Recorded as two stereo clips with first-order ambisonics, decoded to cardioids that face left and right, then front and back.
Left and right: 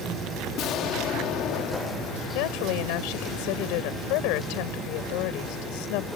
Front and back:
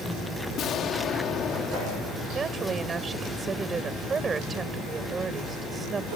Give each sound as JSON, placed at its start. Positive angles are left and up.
{"t": 0.6, "sound": "an explosion", "azimuth_deg": 50}
{"t": 2.3, "sound": "a woman speaking", "azimuth_deg": 110}